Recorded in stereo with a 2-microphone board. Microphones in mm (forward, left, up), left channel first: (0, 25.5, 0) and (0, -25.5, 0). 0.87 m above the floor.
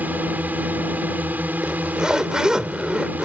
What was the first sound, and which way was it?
A drone, 35° right (ahead or behind).